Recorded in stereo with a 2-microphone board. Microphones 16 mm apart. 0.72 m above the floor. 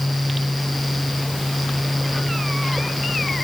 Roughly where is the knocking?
I don't hear knocking.